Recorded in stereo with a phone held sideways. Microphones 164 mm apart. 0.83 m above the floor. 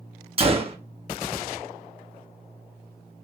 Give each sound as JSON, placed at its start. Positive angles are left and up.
{"t": 0.4, "sound": "a gunshot", "side_deg": -35, "distance_m": 0.7}